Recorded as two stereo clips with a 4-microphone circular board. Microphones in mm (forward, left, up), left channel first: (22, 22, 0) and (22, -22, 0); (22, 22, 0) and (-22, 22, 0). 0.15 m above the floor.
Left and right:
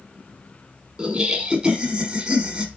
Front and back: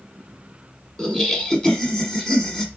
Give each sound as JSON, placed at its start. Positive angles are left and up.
{"t": 1.0, "sound": "laughter", "azimuth_deg": -55, "distance_m": 1.1}